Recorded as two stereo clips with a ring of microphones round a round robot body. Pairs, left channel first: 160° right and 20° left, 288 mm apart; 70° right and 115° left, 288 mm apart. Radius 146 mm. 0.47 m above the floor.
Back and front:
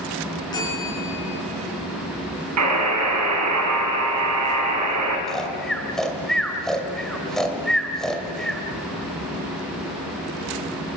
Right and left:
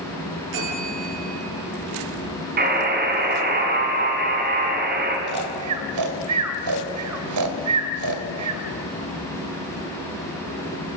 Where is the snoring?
115° left, 2.5 m.